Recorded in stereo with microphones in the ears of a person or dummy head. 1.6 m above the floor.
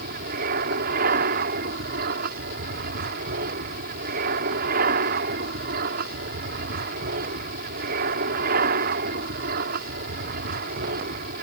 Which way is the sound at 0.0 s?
55° right (ahead or behind).